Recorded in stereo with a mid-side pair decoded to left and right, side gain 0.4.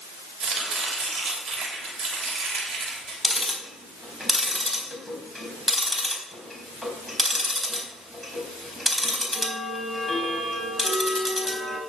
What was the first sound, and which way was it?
Chopping, 50° right.